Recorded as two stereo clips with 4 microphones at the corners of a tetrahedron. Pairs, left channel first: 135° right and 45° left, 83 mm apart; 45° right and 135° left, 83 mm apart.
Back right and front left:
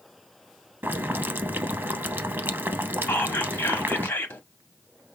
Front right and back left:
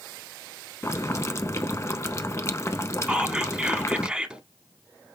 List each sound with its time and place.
0.8 s boiling: 10° right, 0.6 m
3.1 s whispering: 160° right, 1.0 m